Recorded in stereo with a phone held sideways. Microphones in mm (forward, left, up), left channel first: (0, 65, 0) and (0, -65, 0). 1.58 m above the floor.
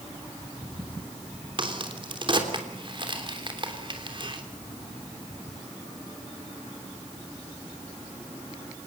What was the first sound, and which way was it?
A crack, 40° right (ahead or behind).